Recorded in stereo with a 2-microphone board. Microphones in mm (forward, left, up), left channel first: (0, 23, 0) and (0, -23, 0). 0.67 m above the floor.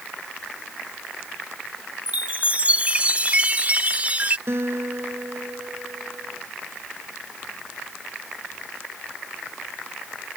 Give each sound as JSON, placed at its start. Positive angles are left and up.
{"t": 2.1, "sound": "a chime", "side_deg": -30}
{"t": 4.5, "sound": "a guitar", "side_deg": -65}